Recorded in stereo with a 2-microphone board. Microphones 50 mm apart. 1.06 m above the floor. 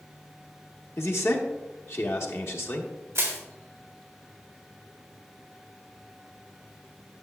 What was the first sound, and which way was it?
A man speaking, 65° left (ahead or behind).